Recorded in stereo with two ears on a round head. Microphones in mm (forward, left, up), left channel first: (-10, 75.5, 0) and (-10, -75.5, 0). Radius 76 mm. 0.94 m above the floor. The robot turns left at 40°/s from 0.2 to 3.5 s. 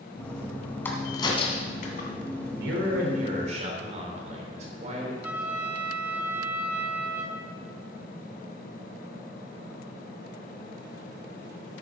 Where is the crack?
15° left (ahead or behind), 2.5 m; by 2.1 s 60° left (ahead or behind), 2.5 m.